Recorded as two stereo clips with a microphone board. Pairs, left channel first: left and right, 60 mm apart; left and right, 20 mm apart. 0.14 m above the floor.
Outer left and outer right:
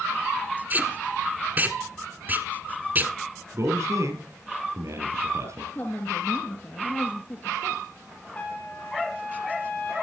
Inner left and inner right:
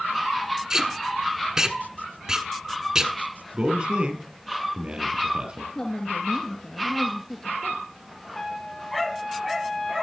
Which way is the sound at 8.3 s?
30° left (ahead or behind).